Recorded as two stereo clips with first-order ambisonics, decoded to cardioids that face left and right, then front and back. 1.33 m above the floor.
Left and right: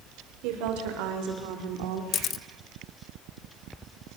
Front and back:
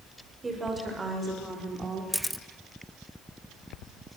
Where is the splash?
No splash in this recording.